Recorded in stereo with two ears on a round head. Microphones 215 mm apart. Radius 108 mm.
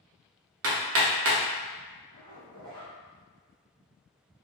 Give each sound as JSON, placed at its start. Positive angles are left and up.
{"t": 0.6, "sound": "hammering", "side_deg": -60, "distance_m": 0.6}
{"t": 2.1, "sound": "a zipper", "side_deg": -75, "distance_m": 1.3}